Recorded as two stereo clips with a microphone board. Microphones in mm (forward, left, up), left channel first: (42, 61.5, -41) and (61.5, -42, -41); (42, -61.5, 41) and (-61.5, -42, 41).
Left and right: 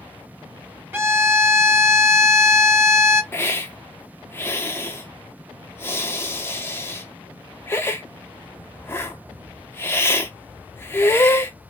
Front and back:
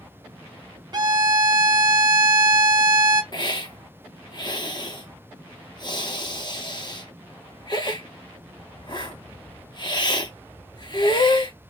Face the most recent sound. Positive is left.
turn(degrees=30)